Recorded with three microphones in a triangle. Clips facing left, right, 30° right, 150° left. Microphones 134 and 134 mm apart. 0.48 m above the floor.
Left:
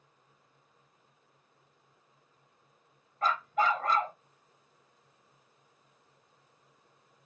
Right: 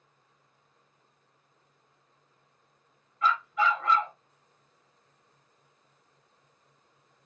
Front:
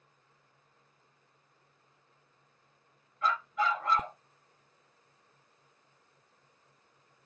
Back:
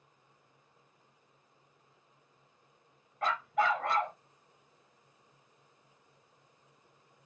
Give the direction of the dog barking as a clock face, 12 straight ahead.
8 o'clock.